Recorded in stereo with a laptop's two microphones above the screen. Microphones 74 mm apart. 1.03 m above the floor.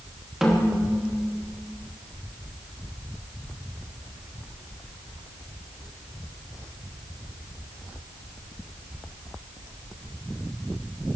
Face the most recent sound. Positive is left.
turn(degrees=-5)  # may be behind; listen again after turning